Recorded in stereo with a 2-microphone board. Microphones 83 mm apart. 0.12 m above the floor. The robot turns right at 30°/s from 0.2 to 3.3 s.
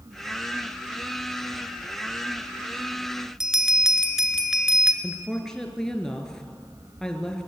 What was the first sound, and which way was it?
A bell, 5° right (ahead or behind).